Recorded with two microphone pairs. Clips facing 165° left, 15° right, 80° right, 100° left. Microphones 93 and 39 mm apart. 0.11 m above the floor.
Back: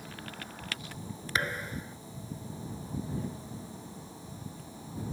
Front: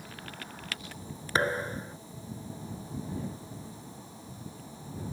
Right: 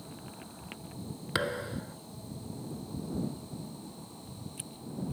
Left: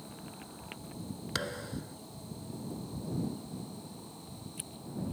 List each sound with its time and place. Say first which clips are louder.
1.4 s a thud: front 5 dB, right 6 dB; 30° right